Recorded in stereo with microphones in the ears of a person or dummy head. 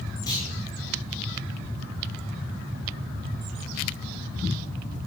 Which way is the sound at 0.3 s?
25° left (ahead or behind).